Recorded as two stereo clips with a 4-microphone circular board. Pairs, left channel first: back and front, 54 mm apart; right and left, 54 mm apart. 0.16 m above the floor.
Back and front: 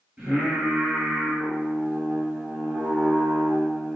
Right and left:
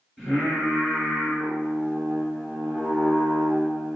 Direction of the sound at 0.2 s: 10° left.